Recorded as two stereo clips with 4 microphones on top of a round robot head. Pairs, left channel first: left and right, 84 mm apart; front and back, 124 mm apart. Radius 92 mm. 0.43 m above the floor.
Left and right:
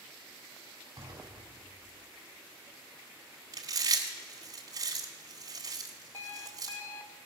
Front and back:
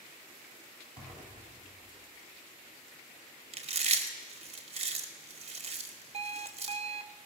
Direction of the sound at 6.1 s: 155° left.